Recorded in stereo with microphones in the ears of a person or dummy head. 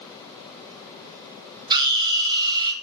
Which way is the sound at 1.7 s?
25° right (ahead or behind).